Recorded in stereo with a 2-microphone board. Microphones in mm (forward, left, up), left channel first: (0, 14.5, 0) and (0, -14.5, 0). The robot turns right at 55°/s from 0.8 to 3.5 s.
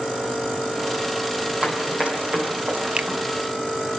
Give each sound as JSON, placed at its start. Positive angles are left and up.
{"t": 1.6, "sound": "running footsteps", "side_deg": -40, "distance_m": 3.5}
{"t": 3.0, "sound": "a finger snap", "side_deg": -40, "distance_m": 0.6}